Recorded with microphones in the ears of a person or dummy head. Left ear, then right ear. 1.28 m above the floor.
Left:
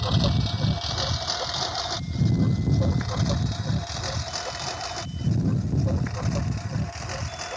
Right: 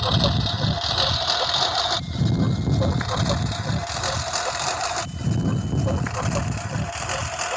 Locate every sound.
0.0 s a lawn mower: 30° right (ahead or behind); by 7.6 s 40° right (ahead or behind)